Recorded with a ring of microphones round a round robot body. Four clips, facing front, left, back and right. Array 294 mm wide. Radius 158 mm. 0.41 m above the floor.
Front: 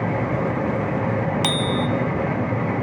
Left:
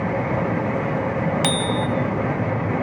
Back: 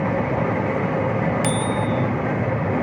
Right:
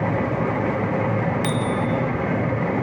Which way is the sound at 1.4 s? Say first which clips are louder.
Left 1 dB, even; 55° left.